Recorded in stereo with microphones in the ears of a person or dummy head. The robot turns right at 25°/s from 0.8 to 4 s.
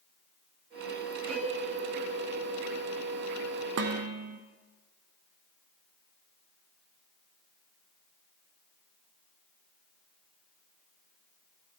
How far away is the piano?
About 1.7 m.